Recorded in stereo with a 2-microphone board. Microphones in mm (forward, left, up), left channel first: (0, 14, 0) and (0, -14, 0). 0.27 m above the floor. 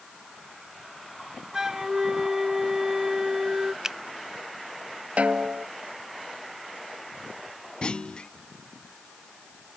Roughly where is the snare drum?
Right.